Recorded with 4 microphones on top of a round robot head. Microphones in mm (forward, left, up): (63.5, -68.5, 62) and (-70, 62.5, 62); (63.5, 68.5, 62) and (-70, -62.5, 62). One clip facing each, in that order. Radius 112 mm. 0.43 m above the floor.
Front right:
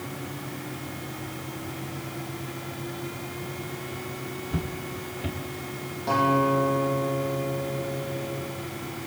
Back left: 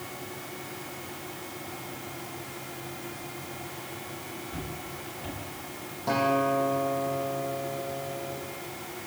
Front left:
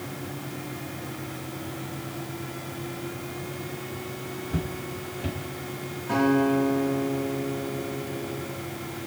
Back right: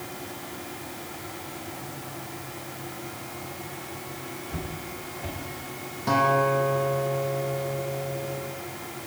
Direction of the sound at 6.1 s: 135° right.